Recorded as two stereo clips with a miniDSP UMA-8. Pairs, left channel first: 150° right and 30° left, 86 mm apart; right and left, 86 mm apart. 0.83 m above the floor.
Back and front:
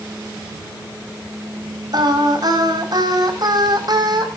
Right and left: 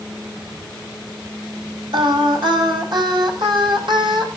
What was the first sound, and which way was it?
Singing, 65° left.